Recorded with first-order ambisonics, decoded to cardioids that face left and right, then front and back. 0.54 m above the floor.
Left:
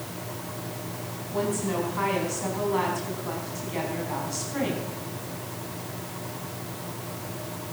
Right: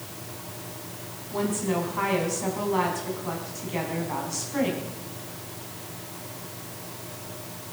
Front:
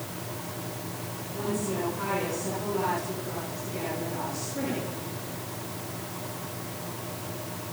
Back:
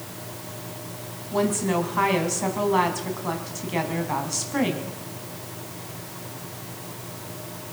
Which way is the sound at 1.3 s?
175° right.